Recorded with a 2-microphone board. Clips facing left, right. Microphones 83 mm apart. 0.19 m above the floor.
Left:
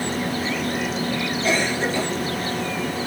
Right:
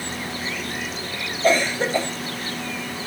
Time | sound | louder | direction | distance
1.4 | a cough | right 4 dB | 45° right (ahead or behind) | 5.5 m